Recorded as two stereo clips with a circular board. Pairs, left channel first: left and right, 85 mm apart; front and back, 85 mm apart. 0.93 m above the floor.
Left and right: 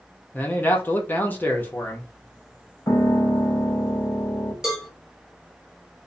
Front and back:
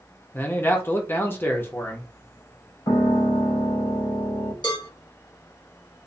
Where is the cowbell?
5° right, 1.4 m.